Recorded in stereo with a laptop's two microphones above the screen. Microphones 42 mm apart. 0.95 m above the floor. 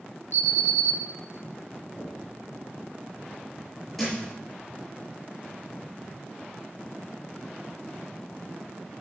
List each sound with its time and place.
0.3 s an alarm: 70° right (ahead or behind), 4 m
2.0 s knocking: centre (ahead or behind), 5 m
4.0 s a thud: 5° left (ahead or behind), 5.5 m